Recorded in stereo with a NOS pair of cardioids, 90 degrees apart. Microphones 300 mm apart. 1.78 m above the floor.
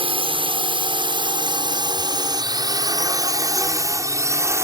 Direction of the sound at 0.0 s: 20° right.